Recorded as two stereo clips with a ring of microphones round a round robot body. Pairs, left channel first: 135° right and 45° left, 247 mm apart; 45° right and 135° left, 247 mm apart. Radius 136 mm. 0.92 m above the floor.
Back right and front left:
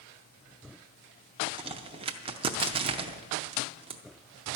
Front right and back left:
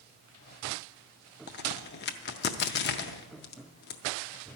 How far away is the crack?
About 0.5 m.